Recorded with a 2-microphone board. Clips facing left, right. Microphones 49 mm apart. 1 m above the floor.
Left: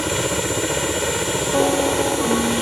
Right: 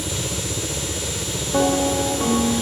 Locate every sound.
0.0 s a helicopter: 50° left (ahead or behind)